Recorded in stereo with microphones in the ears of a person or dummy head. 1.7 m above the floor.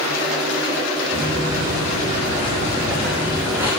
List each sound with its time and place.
1.1 s footsteps: 30° right (ahead or behind), 5 m; by 3.7 s 10° right (ahead or behind), 5 m